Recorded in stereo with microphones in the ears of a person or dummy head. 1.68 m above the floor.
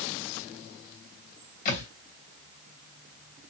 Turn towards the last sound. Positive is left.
turn(degrees=45)  # may be behind; listen again after turning